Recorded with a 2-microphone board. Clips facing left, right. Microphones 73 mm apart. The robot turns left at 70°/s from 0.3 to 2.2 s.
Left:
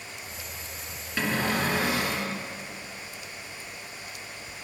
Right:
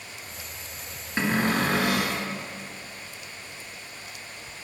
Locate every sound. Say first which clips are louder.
1.2 s a cupboard door: right 3 dB; 35° right, 1.0 m; by 2.3 s 105° right, 1.0 m